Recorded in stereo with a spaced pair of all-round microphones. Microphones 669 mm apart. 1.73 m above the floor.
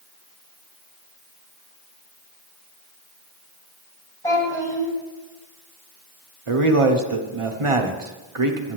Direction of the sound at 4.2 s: 5° left (ahead or behind).